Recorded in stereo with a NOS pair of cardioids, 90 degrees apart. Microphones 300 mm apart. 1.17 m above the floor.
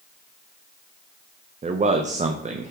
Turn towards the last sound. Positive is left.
turn(degrees=-25)